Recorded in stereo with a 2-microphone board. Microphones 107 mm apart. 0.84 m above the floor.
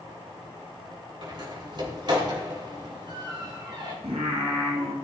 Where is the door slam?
45° right (ahead or behind), 3 m.